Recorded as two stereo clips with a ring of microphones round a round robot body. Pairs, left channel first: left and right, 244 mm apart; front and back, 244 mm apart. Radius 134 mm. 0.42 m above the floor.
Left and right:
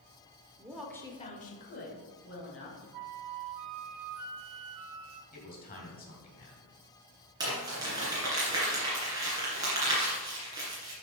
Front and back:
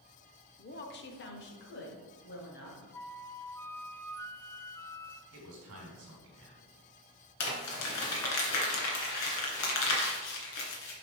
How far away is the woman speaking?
About 0.9 m.